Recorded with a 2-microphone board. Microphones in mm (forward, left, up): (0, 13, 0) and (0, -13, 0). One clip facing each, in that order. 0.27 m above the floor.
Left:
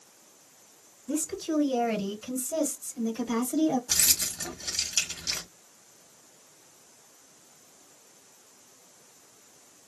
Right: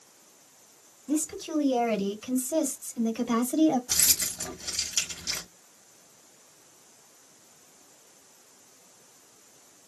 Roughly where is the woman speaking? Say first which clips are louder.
Right 1 dB; centre.